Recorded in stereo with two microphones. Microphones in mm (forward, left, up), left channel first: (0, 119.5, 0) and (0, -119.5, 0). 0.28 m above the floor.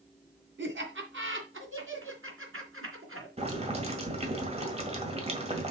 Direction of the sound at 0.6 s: 55° right (ahead or behind).